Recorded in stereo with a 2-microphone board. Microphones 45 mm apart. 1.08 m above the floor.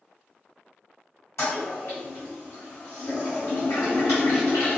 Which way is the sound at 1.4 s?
80° left.